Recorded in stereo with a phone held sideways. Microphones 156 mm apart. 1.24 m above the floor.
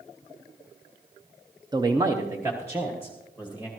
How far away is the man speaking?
About 0.7 m.